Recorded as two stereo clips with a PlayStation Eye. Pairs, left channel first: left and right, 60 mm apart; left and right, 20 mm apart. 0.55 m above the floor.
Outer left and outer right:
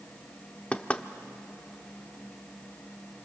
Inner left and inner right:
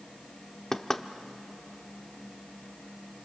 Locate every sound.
0.7 s knocking: 20° left (ahead or behind), 0.8 m